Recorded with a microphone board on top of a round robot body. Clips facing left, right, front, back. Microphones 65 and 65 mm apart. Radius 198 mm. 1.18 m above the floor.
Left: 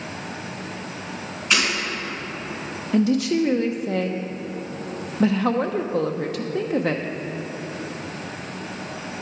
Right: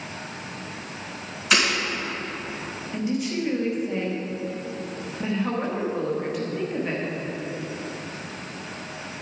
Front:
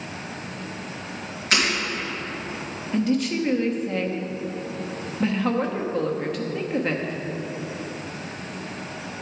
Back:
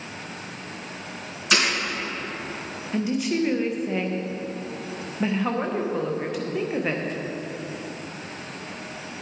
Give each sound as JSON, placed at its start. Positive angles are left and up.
{"t": 1.5, "sound": "breaking glass", "azimuth_deg": -175, "distance_m": 4.0}
{"t": 2.9, "sound": "a woman speaking", "azimuth_deg": 95, "distance_m": 0.9}